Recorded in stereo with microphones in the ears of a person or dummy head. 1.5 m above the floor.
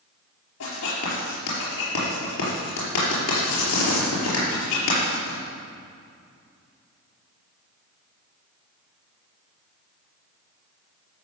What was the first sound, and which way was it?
Writing, 90° left.